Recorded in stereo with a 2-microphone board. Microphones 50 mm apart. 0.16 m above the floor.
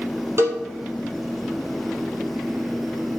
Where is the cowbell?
65° right (ahead or behind), 2.5 m.